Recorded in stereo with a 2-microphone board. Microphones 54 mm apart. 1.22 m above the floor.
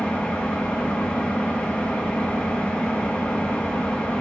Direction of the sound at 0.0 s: 20° left (ahead or behind).